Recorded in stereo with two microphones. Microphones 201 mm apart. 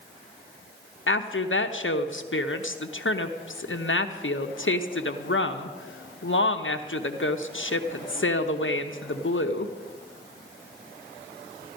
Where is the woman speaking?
75° left (ahead or behind), 0.8 m.